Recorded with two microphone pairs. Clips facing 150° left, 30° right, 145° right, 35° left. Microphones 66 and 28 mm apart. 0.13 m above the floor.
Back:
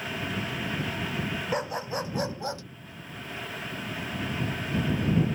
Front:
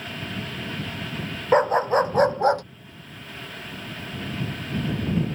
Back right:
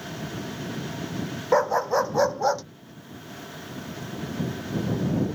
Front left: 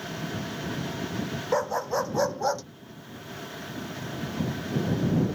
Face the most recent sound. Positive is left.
turn(degrees=-65)